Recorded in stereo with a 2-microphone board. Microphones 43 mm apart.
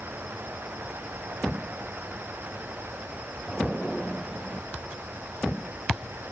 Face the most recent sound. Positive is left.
No sound to turn to.